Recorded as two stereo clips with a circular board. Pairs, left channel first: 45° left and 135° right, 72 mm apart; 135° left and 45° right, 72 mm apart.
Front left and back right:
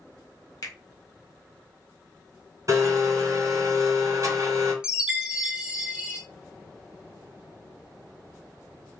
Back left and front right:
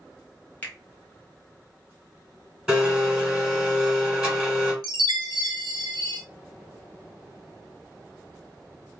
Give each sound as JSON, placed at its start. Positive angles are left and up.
{"t": 0.6, "sound": "a finger snap", "azimuth_deg": 75, "distance_m": 0.9}
{"t": 2.7, "sound": "a blender", "azimuth_deg": -110, "distance_m": 1.8}
{"t": 4.8, "sound": "a chime", "azimuth_deg": -55, "distance_m": 0.6}